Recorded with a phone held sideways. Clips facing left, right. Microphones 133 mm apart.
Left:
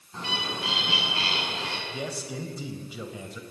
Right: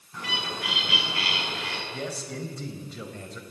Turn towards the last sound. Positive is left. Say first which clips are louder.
# even
turn(degrees=5)  # may be behind; listen again after turning